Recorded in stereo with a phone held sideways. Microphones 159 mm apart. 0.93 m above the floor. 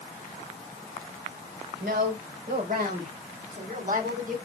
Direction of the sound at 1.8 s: 80° right.